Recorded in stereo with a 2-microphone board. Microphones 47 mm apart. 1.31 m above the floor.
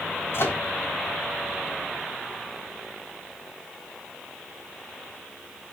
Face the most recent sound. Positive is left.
turn(degrees=55)  # may be behind; listen again after turning